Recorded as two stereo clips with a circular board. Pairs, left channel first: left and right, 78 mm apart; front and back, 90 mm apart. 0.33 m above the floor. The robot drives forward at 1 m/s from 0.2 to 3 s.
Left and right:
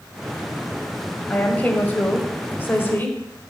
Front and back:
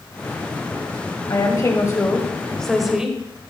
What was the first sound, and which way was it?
A woman speaking, 25° left.